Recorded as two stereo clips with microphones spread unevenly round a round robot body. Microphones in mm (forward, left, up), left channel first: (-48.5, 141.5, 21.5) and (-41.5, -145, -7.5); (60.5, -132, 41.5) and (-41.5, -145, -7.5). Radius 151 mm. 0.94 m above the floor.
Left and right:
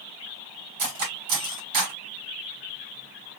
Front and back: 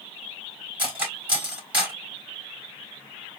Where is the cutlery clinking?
95° right, 3.5 m.